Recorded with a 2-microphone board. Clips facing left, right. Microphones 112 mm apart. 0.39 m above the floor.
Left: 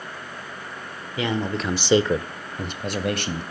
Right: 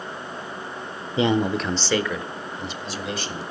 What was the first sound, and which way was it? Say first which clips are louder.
A man speaking: right 5 dB; 30° right (ahead or behind).